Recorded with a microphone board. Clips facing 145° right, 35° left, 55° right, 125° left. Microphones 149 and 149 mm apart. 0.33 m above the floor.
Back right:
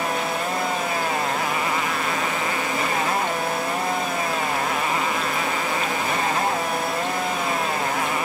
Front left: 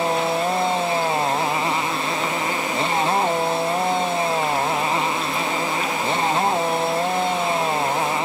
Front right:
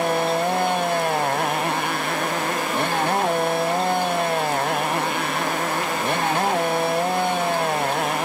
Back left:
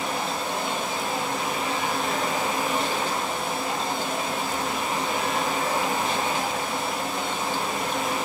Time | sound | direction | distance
0.0 | a motorcycle | 25° right | ?